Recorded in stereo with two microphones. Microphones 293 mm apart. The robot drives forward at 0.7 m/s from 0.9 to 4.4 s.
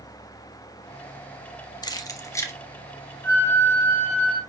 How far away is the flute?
About 1.8 m.